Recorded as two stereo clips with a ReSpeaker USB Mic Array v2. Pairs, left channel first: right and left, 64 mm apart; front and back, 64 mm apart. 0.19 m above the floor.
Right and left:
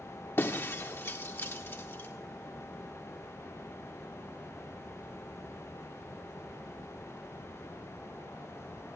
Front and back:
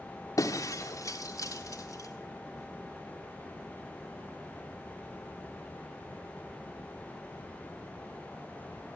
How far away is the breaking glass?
About 3.5 m.